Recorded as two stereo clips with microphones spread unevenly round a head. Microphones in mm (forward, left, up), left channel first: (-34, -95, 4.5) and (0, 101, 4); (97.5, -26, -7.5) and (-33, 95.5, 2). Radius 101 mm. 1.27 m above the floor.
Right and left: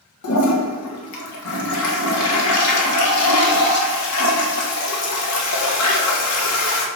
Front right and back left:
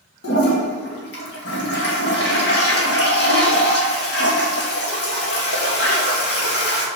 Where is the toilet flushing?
85° right, 2.0 m.